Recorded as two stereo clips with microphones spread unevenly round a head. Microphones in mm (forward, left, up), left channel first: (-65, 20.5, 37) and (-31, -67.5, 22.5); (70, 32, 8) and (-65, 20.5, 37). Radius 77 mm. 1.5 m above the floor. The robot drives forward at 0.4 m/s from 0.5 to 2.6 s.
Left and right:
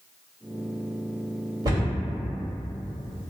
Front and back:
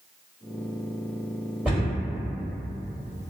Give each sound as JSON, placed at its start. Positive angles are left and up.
{"t": 1.6, "sound": "a cupboard door", "azimuth_deg": -110, "distance_m": 1.5}